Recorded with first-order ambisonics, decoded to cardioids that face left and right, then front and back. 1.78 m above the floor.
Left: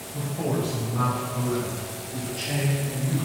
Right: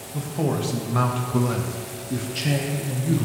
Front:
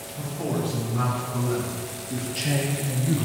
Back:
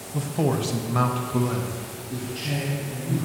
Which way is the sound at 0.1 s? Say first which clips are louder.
Right 2 dB, back 4 dB; 165° right.